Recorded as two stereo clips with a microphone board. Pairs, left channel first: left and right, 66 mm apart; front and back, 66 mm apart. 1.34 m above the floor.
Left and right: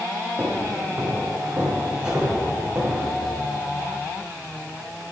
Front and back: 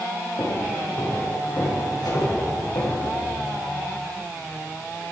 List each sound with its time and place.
0.4 s footsteps: 20° right, 6 m; by 3.0 s 15° right, 8 m
2.0 s a whoosh: 15° right, 6.5 m